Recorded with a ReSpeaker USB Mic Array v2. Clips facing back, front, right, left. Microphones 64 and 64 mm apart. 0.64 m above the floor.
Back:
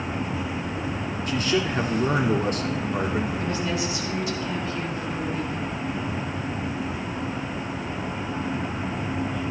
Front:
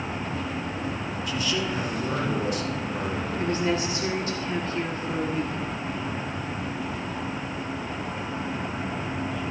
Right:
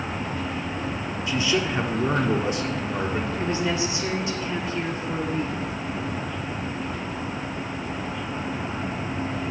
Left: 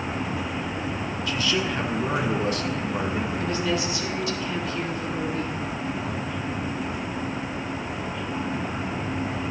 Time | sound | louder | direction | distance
1.3 | a man speaking | back 4 dB, right 2 dB | 150° right | 1.3 m
3.4 | a woman speaking | front 1 dB, right 1 dB | 30° right | 1.6 m